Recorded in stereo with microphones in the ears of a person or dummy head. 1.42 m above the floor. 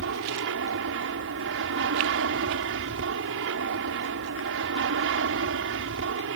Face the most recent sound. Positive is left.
turn(degrees=-60)  # may be behind; listen again after turning